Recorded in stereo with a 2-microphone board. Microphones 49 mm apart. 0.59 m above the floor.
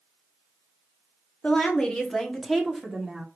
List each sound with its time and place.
1.4 s a woman speaking: 25° left (ahead or behind), 0.9 m; by 3.2 s 10° right (ahead or behind), 1.4 m